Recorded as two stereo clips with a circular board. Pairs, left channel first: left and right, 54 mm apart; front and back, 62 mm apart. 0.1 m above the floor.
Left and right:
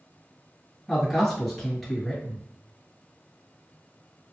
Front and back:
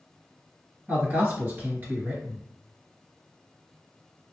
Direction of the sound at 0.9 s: 175° left.